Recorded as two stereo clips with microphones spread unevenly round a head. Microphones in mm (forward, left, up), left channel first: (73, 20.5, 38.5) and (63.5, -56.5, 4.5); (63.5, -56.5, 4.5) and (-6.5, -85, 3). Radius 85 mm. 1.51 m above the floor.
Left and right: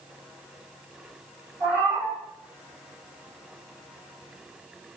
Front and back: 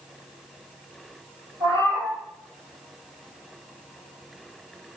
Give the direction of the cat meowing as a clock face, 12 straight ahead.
7 o'clock.